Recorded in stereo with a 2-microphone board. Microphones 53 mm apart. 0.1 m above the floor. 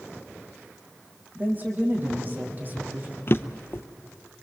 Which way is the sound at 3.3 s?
50° left (ahead or behind).